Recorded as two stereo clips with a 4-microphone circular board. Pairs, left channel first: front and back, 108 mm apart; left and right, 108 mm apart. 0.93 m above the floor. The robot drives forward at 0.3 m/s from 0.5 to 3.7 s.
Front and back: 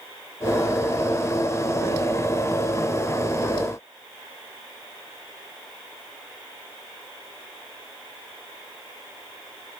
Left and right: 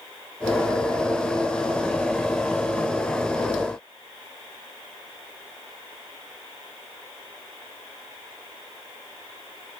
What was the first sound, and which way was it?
Only background noise.